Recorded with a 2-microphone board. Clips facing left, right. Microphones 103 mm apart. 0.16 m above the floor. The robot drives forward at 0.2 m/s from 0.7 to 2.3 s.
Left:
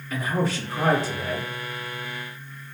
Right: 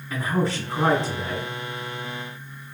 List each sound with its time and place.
0.1 s a man speaking: 25° right (ahead or behind), 1.5 m